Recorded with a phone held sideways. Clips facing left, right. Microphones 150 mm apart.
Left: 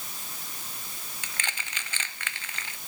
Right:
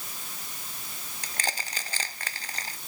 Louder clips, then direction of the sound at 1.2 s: Right 5 dB; 35° right (ahead or behind).